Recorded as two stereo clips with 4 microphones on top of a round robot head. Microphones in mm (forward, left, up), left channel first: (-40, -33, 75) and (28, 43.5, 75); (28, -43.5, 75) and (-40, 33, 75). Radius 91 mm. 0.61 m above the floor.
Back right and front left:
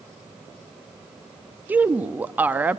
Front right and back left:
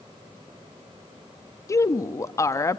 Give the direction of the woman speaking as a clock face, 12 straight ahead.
12 o'clock.